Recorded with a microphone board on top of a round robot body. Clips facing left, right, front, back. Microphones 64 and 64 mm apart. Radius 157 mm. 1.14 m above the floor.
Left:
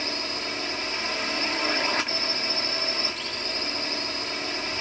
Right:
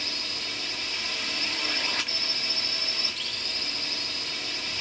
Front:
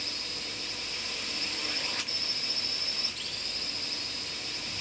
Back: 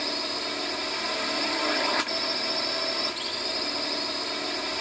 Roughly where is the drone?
Behind left.